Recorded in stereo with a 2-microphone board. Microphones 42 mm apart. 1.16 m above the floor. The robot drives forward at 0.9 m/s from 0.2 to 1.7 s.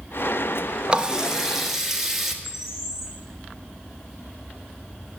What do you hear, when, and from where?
0.9 s a running tap: 25° right (ahead or behind), 0.5 m; by 2.3 s 10° right (ahead or behind), 1.1 m
2.4 s a bird: 15° right (ahead or behind), 4 m